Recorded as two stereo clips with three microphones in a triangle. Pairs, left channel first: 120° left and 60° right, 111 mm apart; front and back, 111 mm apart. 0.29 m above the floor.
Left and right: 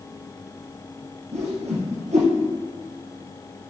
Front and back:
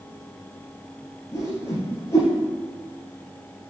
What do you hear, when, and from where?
1.3 s a whoosh: 65° right, 2.5 m